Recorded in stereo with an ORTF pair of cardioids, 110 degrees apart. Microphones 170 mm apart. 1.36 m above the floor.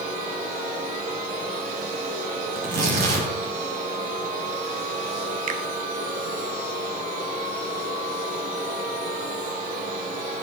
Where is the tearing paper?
65° right, 7.5 m.